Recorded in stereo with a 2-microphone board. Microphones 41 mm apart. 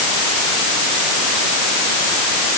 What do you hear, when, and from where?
Only background noise.